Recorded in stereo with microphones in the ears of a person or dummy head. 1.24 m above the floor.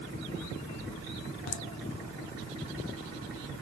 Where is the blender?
I don't hear a blender.